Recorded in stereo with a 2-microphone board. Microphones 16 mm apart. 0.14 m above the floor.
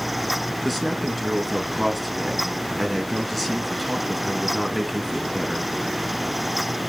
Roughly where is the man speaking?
Centre.